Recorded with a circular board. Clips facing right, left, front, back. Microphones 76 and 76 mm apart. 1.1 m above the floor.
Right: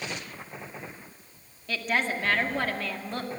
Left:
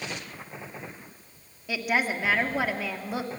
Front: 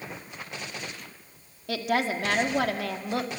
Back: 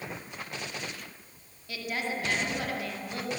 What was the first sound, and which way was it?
A woman speaking, 10° left.